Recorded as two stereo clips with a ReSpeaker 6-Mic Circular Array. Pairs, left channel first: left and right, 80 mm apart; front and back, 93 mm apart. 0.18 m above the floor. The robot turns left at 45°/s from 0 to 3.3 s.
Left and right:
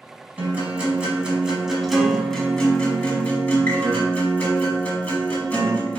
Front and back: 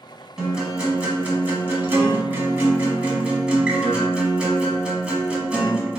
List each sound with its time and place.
0.4 s a guitar: 105° right, 1.2 m; by 6.0 s 125° left, 1.2 m